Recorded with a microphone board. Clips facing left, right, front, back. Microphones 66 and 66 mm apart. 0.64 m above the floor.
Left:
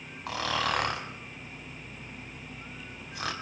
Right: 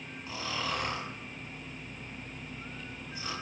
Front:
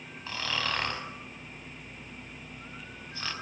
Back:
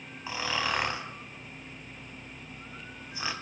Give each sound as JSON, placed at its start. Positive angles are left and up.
{"t": 0.3, "sound": "snoring", "azimuth_deg": 110, "distance_m": 4.5}